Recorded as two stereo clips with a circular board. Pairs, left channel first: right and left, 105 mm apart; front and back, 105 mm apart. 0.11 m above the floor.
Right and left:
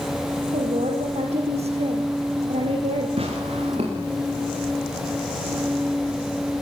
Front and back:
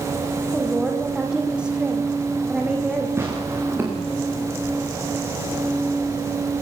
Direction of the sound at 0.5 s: 100° left.